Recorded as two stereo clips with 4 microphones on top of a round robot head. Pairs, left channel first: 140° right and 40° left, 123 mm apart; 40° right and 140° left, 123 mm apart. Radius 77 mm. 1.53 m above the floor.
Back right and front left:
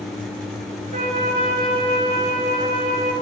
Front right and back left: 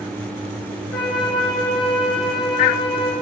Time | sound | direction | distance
0.9 | a flute | 55° left | 4.5 m